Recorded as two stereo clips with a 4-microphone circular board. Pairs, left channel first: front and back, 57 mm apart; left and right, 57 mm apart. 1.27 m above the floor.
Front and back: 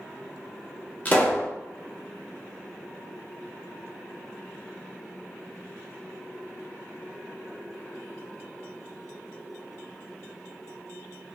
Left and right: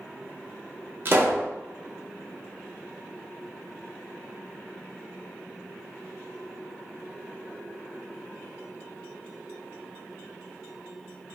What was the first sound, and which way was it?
A pop, 55° right.